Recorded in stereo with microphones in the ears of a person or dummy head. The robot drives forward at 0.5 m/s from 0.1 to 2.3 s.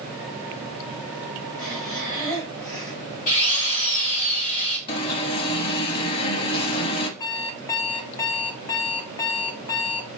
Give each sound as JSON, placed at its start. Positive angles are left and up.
{"t": 1.6, "sound": "breathing", "side_deg": 40, "distance_m": 3.5}
{"t": 3.3, "sound": "a drill", "side_deg": 40, "distance_m": 2.0}
{"t": 4.9, "sound": "an alarm", "side_deg": 25, "distance_m": 0.6}
{"t": 7.2, "sound": "an alarm clock", "side_deg": 15, "distance_m": 0.7}